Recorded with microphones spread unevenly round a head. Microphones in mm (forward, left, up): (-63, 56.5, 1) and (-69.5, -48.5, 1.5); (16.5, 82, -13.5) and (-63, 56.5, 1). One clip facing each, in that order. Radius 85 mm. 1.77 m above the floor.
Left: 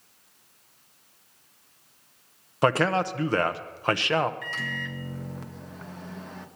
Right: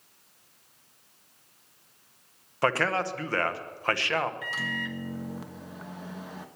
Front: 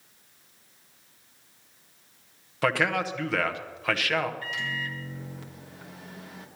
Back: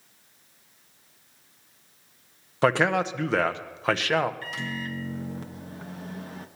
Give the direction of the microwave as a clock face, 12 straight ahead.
6 o'clock.